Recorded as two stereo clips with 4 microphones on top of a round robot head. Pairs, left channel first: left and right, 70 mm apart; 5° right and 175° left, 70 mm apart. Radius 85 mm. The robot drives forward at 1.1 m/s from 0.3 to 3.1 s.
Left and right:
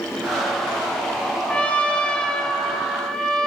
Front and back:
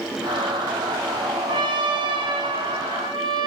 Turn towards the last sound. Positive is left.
turn(degrees=170)